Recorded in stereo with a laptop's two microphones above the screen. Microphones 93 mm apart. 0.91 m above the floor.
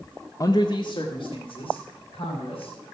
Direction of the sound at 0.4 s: 35° left (ahead or behind).